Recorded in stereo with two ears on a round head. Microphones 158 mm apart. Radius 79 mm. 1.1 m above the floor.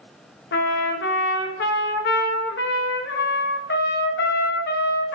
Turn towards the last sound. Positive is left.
turn(degrees=65)  # may be behind; listen again after turning